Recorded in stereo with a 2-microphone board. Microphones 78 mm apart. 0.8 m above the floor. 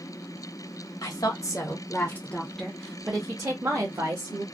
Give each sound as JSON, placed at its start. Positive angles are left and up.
{"t": 1.0, "sound": "a woman speaking", "side_deg": 55, "distance_m": 1.0}